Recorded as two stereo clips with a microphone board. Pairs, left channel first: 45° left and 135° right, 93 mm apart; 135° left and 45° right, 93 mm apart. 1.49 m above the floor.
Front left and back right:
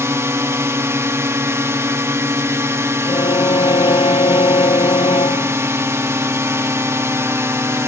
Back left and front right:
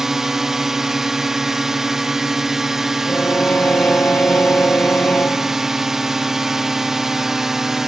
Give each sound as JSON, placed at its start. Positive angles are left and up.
{"t": 0.0, "sound": "a drone", "azimuth_deg": -125}
{"t": 3.1, "sound": "a violin", "azimuth_deg": 65}